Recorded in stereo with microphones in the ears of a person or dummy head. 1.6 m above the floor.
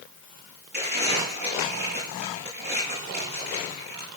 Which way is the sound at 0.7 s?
55° right (ahead or behind).